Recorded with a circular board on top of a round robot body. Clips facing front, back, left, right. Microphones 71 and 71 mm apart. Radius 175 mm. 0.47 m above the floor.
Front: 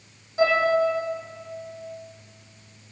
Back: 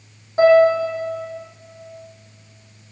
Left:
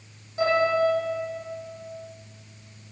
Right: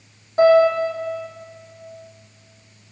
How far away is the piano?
About 9 m.